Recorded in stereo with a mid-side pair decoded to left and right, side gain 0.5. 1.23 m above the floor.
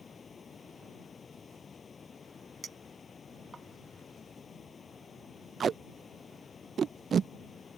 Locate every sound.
0.0 s running water: 35° left
2.6 s a clink: 25° right
5.6 s tape being pulled: 40° right